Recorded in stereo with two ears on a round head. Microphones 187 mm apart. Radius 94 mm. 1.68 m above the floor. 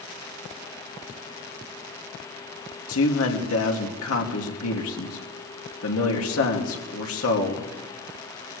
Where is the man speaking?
80° left, 2.5 m.